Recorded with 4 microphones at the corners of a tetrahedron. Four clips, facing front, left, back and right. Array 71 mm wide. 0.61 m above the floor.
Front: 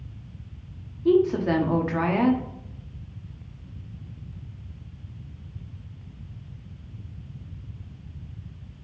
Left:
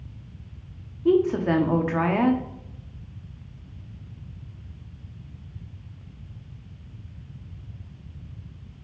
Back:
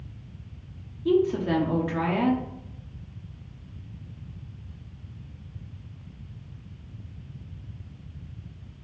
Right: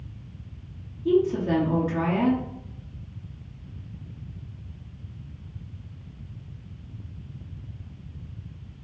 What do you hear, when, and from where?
1.1 s a woman speaking: 70° left, 0.7 m